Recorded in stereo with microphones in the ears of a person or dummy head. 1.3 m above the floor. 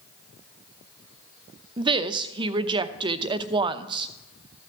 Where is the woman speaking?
25° right (ahead or behind), 0.8 m.